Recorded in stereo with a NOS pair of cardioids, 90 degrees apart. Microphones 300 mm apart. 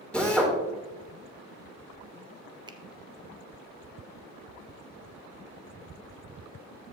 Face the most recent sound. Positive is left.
turn(degrees=-15)